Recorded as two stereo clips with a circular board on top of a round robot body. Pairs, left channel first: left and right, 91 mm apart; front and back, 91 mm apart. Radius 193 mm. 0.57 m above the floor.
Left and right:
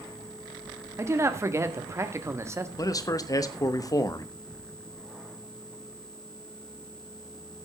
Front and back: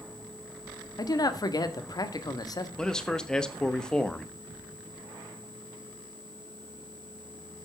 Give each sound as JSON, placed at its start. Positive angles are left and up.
{"t": 1.0, "sound": "a man speaking", "azimuth_deg": -35, "distance_m": 1.8}
{"t": 2.8, "sound": "a man speaking", "azimuth_deg": 80, "distance_m": 1.6}